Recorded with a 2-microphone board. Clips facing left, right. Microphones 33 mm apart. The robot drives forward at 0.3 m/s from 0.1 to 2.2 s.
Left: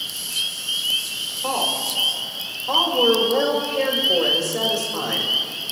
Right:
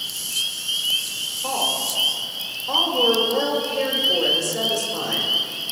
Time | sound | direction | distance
1.4 | a woman speaking | 10° left (ahead or behind) | 2.5 m